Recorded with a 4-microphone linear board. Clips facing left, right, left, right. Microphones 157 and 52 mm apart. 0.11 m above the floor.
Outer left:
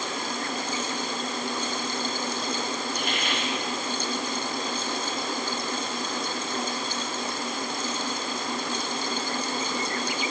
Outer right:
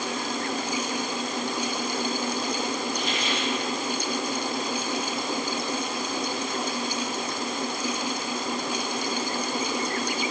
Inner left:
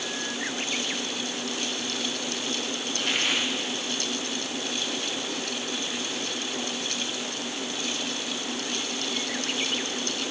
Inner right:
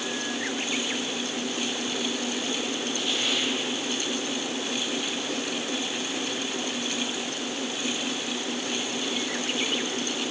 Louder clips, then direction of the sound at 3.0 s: Outer right 1 dB, inner left 3 dB; 60° left (ahead or behind).